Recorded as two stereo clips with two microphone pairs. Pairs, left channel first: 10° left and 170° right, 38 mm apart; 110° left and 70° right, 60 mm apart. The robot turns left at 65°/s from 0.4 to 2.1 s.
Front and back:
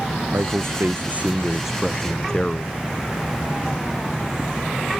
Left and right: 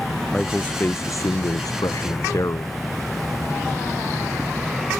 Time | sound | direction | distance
0.3 | a man speaking | 170° right | ?